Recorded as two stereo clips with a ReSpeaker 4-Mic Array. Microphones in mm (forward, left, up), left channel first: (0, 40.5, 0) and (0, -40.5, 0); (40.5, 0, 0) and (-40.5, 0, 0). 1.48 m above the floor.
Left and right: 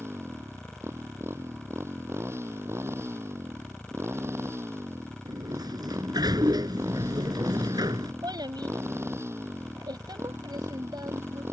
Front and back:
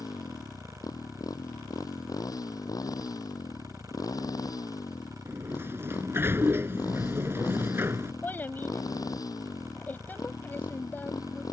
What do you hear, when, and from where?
0.0 s a motorcycle: 35° right
5.2 s a sliding door: 120° right
8.2 s a child speaking: 65° right